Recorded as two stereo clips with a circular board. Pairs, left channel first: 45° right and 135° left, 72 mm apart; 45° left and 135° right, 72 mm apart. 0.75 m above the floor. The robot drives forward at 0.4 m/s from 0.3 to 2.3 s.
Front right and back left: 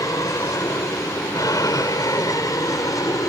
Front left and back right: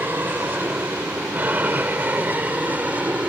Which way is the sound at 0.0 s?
75° right.